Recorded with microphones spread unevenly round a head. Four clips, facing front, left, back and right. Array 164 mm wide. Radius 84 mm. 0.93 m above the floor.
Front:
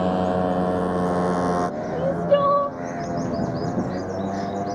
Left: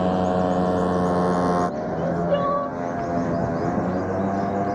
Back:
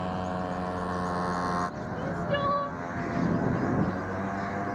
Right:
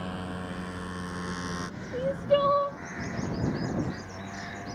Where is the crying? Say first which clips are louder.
Even, front 12 dB; 5° right.